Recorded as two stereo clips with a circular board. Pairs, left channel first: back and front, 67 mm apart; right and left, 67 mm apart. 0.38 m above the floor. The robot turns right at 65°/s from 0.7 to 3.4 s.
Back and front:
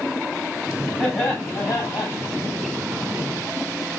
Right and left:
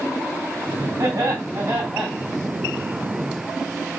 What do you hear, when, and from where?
1.0 s laughter: 85° left, 3 m; by 2.1 s 155° left, 3 m